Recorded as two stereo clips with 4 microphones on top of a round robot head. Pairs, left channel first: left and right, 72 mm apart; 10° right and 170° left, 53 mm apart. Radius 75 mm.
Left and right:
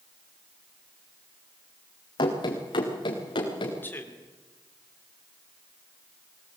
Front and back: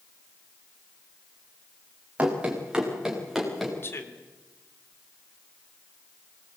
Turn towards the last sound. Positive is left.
turn(degrees=30)